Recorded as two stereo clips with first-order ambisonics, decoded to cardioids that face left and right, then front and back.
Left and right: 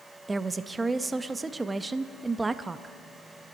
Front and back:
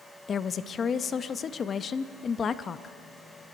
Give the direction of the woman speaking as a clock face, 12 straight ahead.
1 o'clock.